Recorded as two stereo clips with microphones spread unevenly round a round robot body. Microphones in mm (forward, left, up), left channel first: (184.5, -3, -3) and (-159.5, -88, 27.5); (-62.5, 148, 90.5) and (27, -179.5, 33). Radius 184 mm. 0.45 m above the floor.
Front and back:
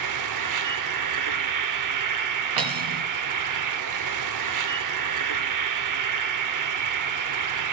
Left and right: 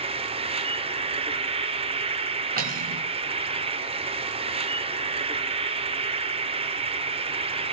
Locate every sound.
0.0 s an insect: 140° right, 1.1 m
2.6 s cutlery clinking: 140° right, 3 m